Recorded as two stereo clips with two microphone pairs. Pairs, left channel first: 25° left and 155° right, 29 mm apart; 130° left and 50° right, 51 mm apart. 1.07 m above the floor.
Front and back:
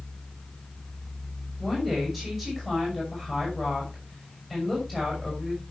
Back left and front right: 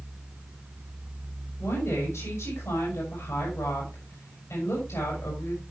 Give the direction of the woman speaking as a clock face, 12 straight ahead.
8 o'clock.